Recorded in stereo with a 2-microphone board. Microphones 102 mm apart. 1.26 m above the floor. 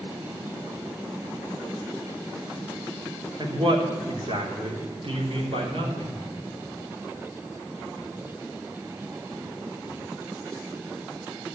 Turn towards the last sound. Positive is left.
turn(degrees=-75)  # may be behind; listen again after turning